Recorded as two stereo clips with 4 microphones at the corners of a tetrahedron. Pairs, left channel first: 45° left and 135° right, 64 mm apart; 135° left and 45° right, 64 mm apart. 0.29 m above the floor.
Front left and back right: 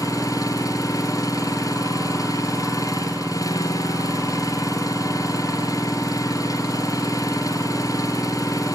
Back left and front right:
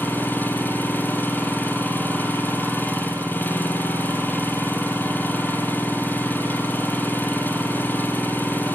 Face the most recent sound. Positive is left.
turn(degrees=70)